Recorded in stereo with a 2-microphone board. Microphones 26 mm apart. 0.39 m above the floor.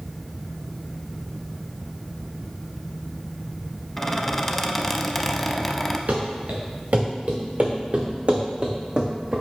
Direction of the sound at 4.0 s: 15° left (ahead or behind).